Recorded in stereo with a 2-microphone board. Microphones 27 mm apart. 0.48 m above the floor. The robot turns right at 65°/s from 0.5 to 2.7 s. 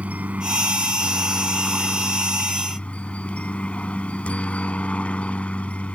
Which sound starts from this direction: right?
A helicopter, at 0.0 s.